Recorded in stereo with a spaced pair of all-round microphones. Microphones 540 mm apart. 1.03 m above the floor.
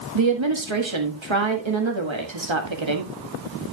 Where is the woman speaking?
55° right (ahead or behind), 1.7 m.